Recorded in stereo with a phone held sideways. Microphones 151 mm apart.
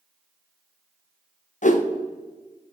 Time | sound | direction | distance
1.6 | a whoosh | 60° left (ahead or behind) | 0.7 m